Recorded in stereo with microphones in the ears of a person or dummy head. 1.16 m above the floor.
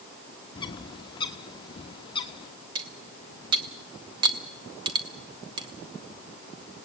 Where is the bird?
30° left (ahead or behind), 1.0 m.